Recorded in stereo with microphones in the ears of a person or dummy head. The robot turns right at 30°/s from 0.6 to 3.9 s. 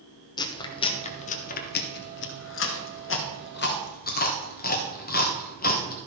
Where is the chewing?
25° left (ahead or behind), 1.4 m; by 6.0 s 45° left (ahead or behind), 1.4 m.